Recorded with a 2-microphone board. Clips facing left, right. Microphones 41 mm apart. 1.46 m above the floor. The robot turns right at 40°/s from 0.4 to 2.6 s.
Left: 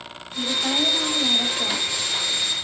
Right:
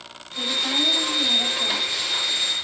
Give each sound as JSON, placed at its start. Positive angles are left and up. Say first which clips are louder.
{"t": 0.3, "sound": "a woman speaking", "louder": "left 1 dB", "azimuth_deg": 10, "distance_m": 1.8}